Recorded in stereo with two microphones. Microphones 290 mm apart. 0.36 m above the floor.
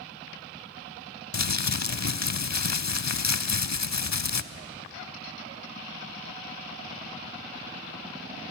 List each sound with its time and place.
1.3 s crumpling: 65° left (ahead or behind), 0.6 m